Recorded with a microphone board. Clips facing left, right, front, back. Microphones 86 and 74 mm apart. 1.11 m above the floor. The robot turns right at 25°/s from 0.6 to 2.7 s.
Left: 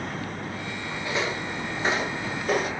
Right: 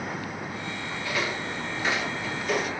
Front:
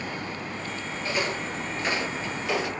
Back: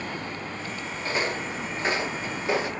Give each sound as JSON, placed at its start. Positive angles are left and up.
{"t": 1.0, "sound": "footsteps", "azimuth_deg": 140, "distance_m": 1.3}